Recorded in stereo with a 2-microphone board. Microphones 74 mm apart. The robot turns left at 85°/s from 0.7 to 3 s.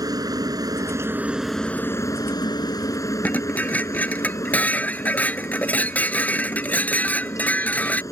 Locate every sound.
0.0 s a helicopter: 110° right; by 8.1 s 50° left
3.2 s dishes clattering: 20° left (ahead or behind)